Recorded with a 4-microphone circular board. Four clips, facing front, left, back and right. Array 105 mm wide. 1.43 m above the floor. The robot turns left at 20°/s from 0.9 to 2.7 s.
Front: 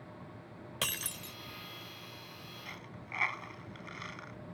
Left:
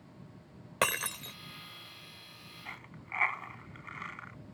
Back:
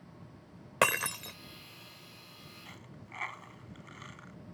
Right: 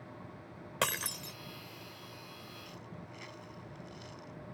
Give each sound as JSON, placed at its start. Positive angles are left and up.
{"t": 0.8, "sound": "breaking glass", "azimuth_deg": 165}
{"t": 2.6, "sound": "a dropped coin", "azimuth_deg": 80}